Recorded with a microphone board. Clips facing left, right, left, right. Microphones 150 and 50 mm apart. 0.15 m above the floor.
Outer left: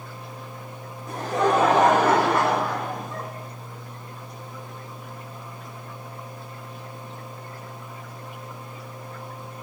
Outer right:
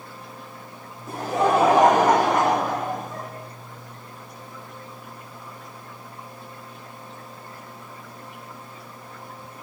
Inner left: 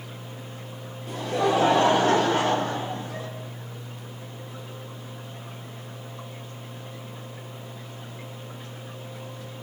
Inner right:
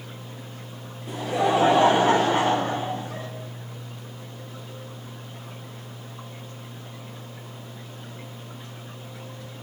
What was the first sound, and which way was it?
Laughter, 5° right (ahead or behind).